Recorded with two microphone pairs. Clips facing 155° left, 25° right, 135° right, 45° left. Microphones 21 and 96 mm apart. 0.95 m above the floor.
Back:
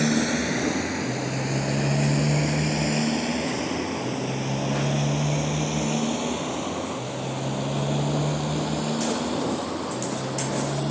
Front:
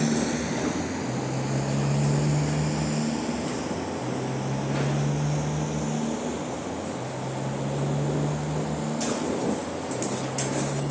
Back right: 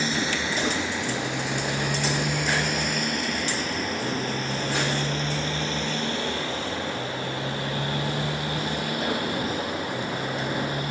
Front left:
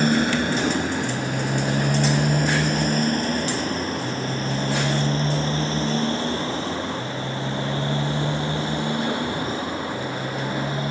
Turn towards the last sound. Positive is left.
turn(degrees=110)